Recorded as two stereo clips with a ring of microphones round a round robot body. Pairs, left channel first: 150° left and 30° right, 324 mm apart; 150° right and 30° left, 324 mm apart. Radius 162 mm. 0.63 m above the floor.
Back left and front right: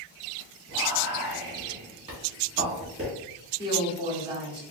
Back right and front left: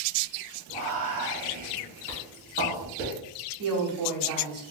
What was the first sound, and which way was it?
Whispering, 30° left.